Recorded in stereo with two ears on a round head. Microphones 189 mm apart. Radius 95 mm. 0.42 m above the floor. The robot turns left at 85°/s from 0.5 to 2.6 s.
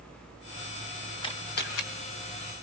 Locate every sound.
1.2 s a camera shutter: 25° left (ahead or behind), 3 m; by 1.8 s 70° left (ahead or behind), 3 m